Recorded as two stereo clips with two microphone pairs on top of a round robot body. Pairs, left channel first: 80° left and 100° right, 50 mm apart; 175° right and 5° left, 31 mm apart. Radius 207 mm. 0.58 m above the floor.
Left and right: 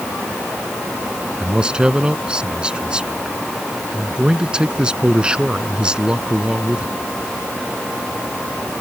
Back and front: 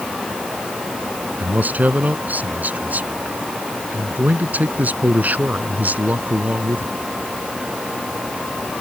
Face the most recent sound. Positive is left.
turn(degrees=-25)